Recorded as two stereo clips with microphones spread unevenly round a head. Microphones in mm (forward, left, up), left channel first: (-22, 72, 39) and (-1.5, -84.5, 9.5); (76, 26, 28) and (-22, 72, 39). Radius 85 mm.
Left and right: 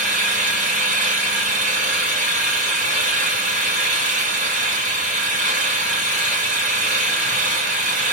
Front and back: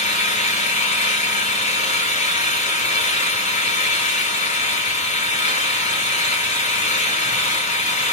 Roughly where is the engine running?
Ahead right.